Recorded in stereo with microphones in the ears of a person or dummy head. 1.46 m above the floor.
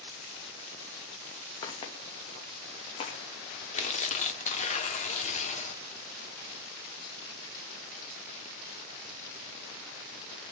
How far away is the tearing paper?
About 1.2 m.